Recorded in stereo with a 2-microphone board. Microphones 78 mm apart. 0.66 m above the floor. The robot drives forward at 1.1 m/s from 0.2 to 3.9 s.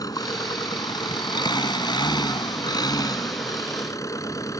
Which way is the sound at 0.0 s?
60° left (ahead or behind).